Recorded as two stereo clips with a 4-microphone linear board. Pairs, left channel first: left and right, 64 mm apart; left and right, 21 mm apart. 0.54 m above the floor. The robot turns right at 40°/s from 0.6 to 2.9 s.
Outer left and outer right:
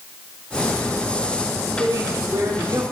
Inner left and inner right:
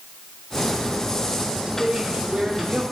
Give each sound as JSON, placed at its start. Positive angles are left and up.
{"t": 1.6, "sound": "a woman speaking", "azimuth_deg": -115, "distance_m": 3.0}